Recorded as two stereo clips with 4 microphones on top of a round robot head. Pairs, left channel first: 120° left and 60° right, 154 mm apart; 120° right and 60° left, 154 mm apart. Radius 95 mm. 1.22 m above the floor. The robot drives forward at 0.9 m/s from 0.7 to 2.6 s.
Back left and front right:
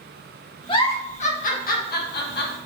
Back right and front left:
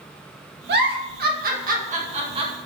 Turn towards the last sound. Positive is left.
turn(degrees=120)